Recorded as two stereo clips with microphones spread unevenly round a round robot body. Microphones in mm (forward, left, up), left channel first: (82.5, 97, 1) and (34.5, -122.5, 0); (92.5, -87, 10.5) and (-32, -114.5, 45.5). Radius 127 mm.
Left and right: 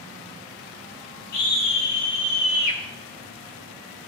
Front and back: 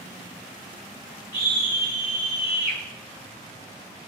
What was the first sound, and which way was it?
A scream, 95° left.